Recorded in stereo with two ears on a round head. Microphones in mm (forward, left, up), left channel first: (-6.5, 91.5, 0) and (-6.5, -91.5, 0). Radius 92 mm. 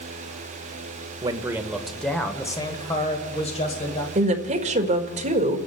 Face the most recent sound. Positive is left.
turn(degrees=-35)  # may be behind; listen again after turning